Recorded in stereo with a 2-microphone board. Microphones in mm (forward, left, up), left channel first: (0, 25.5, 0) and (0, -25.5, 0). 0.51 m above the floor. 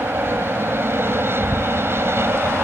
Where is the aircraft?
50° right (ahead or behind); by 2.6 s 55° right (ahead or behind).